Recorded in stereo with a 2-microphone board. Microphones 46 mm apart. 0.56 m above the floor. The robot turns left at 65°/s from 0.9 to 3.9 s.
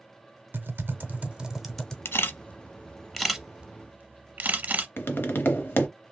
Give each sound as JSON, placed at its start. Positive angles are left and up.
{"t": 0.5, "sound": "typing on a keyboard", "side_deg": -55, "distance_m": 0.6}
{"t": 2.0, "sound": "a camera shutter", "side_deg": 60, "distance_m": 0.7}
{"t": 5.0, "sound": "tapping", "side_deg": 50, "distance_m": 0.7}